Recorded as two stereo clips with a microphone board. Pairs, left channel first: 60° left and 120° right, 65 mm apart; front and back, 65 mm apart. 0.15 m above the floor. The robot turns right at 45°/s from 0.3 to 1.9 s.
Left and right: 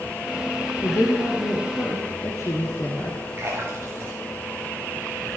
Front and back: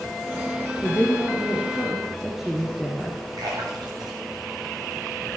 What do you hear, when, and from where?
0.8 s a woman speaking: 45° left, 2.5 m; by 3.2 s 95° left, 2.5 m
3.4 s a splash: 175° right, 6.5 m